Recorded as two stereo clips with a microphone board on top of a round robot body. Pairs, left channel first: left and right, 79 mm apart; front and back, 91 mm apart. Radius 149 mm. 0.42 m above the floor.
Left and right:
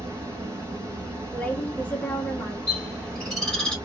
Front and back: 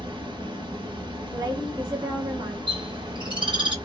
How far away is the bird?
About 2.5 m.